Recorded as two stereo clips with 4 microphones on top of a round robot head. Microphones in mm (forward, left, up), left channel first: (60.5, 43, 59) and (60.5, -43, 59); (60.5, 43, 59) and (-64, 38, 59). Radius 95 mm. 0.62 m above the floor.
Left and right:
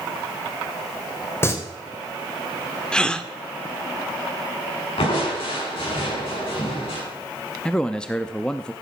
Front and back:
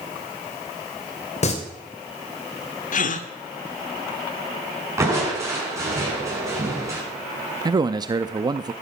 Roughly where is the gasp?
Ahead.